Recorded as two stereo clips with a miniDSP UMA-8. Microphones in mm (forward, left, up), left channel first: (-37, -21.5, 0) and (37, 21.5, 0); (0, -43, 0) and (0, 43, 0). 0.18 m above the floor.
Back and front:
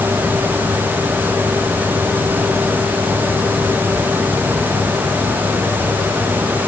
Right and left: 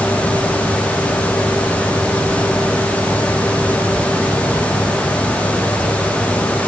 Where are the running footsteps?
I don't hear running footsteps.